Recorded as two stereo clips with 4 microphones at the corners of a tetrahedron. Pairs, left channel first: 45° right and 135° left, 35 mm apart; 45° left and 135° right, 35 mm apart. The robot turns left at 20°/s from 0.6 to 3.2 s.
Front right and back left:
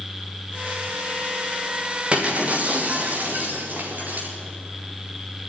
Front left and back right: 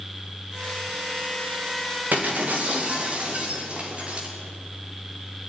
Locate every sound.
2.1 s breaking glass: 170° right, 6 m; by 4.3 s 170° left, 6 m